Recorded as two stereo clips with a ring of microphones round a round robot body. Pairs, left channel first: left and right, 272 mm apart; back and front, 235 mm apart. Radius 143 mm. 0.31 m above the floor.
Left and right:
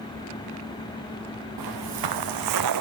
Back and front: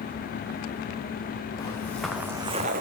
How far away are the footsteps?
About 2.5 m.